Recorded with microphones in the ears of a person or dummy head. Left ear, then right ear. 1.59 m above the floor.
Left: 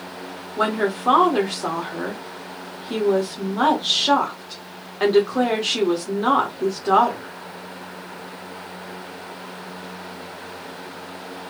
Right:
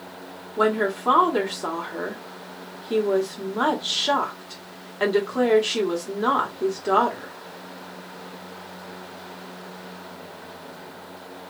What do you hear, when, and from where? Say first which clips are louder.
0.6 s a woman speaking: even; 15° right (ahead or behind), 1.5 m